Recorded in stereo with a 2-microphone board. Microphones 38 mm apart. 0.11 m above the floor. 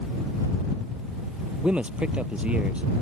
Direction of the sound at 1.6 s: 30° right (ahead or behind).